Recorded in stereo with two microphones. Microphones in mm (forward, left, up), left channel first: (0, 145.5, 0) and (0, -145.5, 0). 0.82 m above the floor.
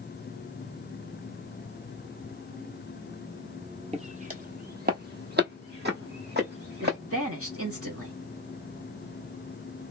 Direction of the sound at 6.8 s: 50° right (ahead or behind).